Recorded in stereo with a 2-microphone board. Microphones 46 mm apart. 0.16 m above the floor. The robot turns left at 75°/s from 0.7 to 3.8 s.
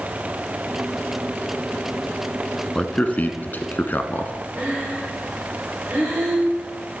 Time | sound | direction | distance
2.8 | a man speaking | 15° left (ahead or behind) | 1.3 m
4.6 | breathing | 25° right (ahead or behind) | 9 m